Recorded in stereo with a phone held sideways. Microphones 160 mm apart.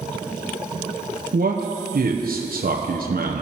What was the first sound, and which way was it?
A man speaking, 65° right (ahead or behind).